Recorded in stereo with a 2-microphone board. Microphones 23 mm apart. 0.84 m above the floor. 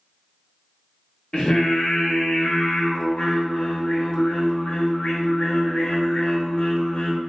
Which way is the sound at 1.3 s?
40° left (ahead or behind).